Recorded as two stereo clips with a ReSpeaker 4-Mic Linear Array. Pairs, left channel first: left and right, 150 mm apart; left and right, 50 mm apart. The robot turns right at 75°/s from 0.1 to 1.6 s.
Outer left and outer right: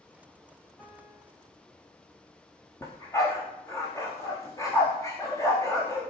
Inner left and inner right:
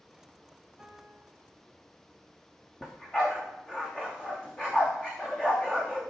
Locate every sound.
0.8 s a piano: 5° left, 3.5 m; by 1.3 s 40° left, 3.5 m
2.8 s a dog barking: 20° left (ahead or behind), 3.5 m